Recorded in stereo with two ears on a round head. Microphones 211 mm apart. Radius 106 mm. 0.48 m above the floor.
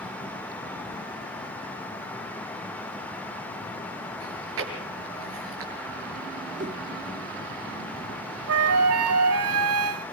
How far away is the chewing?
About 5.5 m.